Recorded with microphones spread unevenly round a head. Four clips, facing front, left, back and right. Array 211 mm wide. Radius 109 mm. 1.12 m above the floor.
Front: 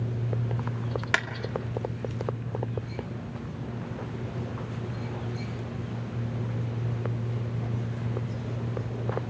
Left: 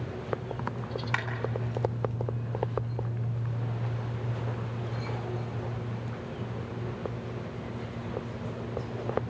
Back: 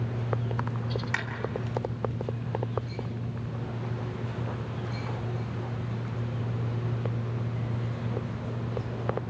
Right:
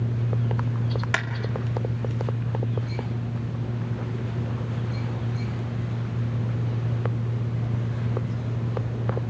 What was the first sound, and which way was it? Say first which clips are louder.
A clap: right 4 dB, front 9 dB; 30° right.